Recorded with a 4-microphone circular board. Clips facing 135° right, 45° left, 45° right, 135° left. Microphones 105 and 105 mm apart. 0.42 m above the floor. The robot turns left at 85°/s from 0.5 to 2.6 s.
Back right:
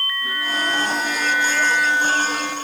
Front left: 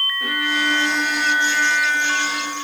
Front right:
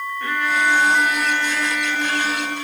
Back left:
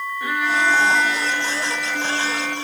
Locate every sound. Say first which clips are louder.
0.2 s a violin: front left 3 dB, even; 55° left, 5 m; by 2.5 s 120° right, 5 m